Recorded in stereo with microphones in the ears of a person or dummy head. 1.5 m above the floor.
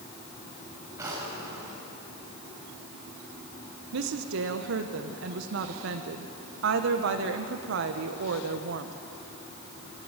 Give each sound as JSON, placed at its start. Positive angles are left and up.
{"t": 1.0, "sound": "a drawer", "side_deg": -15, "distance_m": 5.0}
{"t": 3.9, "sound": "a woman speaking", "side_deg": -70, "distance_m": 1.0}